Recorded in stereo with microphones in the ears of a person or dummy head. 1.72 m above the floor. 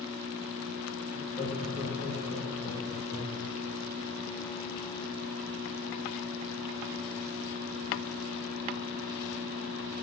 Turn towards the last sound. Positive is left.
turn(degrees=-25)  # may be behind; listen again after turning